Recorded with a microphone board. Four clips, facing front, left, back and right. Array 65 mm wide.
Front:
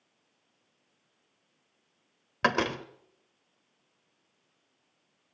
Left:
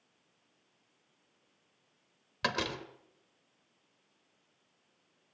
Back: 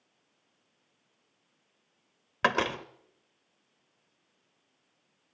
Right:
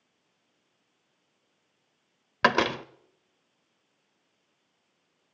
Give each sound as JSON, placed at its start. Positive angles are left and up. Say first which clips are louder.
{"t": 2.4, "sound": "a door slam", "louder": "right 11 dB, even", "azimuth_deg": -95, "distance_m": 1.0}